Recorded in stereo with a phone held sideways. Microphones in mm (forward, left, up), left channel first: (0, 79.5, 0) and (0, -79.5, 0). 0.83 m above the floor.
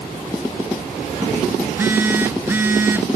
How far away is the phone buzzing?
About 0.5 m.